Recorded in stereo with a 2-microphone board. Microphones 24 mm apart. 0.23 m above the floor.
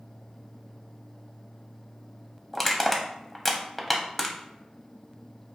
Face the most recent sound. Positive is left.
turn(degrees=5)  # may be behind; listen again after turning